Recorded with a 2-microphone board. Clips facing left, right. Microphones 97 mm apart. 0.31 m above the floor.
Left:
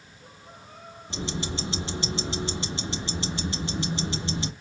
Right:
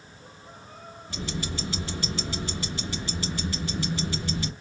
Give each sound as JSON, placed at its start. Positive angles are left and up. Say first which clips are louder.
{"t": 1.1, "sound": "ticking", "louder": "left 2 dB", "side_deg": 25, "distance_m": 0.6}